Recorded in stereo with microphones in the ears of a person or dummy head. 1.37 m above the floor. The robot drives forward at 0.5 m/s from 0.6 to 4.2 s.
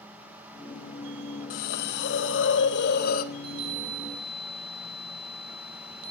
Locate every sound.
1.5 s a hiss: 50° left (ahead or behind), 0.8 m; by 3.2 s 45° left (ahead or behind), 0.8 m
3.3 s a chime: 60° right (ahead or behind), 2.5 m; by 6.1 s 65° right (ahead or behind), 2.5 m